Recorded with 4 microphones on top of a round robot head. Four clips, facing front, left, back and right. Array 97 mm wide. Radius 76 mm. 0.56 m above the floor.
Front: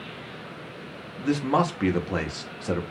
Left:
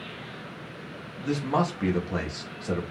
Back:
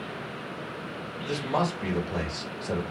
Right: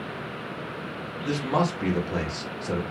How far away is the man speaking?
About 1.1 m.